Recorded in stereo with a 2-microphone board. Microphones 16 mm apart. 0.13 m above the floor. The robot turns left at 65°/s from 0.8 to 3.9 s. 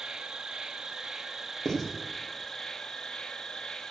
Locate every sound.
0.0 s an insect: 115° right, 0.8 m; by 3.9 s 45° left, 0.8 m
1.6 s writing: 40° left (ahead or behind), 3 m; by 1.9 s 25° left (ahead or behind), 3 m